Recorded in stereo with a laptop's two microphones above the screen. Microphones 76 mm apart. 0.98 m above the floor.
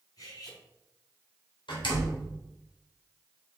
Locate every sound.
0.2 s cutlery clinking: 50° left (ahead or behind), 4 m
1.7 s a door slam: 85° left, 3 m